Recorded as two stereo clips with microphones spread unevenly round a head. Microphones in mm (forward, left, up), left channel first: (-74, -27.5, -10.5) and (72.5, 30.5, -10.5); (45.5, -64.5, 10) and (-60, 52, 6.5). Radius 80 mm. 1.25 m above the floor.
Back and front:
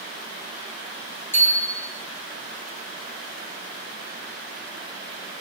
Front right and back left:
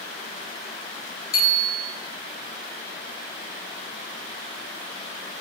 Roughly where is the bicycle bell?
Right.